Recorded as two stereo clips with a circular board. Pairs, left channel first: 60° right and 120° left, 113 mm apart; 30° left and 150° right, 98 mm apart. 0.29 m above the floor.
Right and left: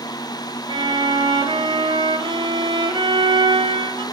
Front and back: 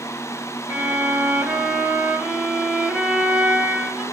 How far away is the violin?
About 1.0 m.